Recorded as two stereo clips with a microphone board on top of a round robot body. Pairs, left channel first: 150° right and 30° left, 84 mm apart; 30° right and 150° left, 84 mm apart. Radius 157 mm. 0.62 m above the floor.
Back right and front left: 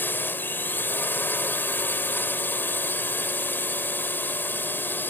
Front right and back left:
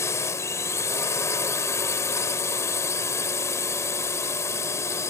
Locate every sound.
0.0 s a drone: 85° right